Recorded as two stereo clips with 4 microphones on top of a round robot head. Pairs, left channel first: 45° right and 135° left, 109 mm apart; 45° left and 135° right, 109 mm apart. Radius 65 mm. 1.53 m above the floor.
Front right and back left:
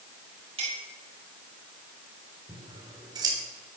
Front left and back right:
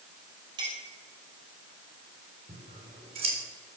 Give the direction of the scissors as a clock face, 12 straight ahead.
6 o'clock.